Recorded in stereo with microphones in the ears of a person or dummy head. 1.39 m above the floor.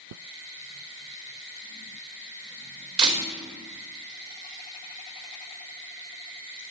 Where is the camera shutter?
30° right (ahead or behind), 3 m.